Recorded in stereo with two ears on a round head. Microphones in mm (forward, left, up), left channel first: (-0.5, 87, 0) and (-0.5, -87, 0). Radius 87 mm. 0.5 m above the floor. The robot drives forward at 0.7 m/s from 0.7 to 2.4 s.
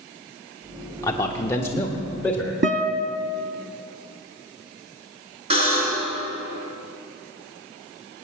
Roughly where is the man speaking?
Centre.